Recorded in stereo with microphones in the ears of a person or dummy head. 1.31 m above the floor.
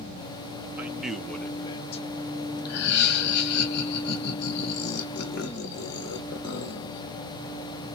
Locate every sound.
0.8 s a man speaking: 15° right (ahead or behind), 0.8 m; by 3.6 s 65° left (ahead or behind), 1.1 m
2.6 s laughter: 60° left (ahead or behind), 0.9 m